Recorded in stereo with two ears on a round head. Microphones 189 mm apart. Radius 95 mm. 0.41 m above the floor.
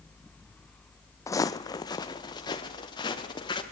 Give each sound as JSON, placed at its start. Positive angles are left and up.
{"t": 1.3, "sound": "footsteps", "side_deg": 15, "distance_m": 0.7}